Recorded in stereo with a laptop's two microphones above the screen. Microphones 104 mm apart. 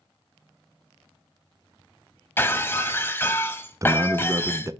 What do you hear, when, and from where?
2.4 s breaking glass: 20° left (ahead or behind), 1.6 m
3.8 s a man speaking: 30° right (ahead or behind), 0.6 m